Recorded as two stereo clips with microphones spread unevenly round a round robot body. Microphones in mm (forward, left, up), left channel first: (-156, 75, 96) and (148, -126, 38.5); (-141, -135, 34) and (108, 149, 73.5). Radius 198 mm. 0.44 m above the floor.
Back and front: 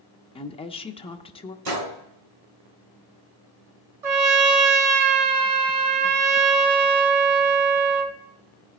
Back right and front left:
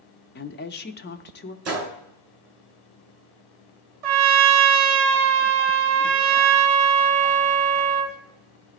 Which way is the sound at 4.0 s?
15° left.